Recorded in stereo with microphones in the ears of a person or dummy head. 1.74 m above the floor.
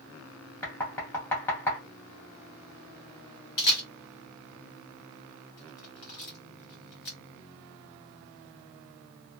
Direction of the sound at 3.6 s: 40° left (ahead or behind).